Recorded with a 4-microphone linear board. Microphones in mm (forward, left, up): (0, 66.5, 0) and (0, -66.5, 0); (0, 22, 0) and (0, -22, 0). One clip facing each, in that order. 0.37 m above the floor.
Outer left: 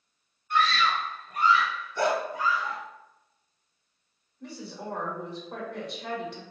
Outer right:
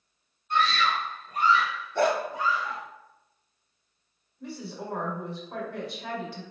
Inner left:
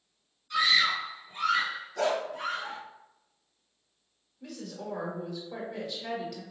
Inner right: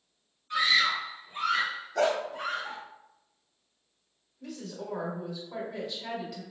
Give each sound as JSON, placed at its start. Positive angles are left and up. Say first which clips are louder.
{"t": 0.5, "sound": "a scream", "louder": "even, even", "side_deg": -30, "distance_m": 1.5}
{"t": 1.9, "sound": "a dog barking", "louder": "outer right 2 dB, inner right 2 dB", "side_deg": -60, "distance_m": 0.7}
{"t": 4.4, "sound": "a woman speaking", "louder": "outer right 1 dB, even", "side_deg": 0, "distance_m": 1.4}